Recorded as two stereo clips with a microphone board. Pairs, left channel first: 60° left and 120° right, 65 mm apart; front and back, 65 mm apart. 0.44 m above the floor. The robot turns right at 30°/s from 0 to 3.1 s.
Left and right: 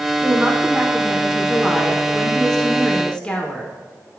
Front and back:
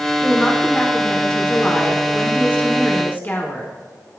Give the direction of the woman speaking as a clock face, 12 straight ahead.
3 o'clock.